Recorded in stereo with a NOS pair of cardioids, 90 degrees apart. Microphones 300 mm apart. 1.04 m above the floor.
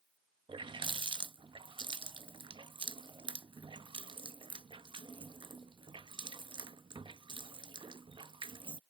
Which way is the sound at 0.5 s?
15° right.